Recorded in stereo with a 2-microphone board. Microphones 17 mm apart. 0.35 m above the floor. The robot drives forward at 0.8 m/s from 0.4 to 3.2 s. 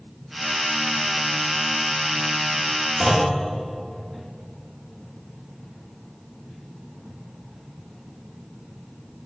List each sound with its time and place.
3.0 s a clunk: 25° right (ahead or behind), 7 m